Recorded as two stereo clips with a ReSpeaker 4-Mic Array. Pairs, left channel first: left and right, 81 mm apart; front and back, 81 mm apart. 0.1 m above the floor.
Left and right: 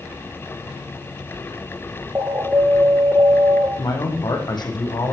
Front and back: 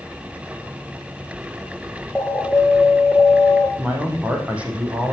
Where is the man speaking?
110° left, 4 m.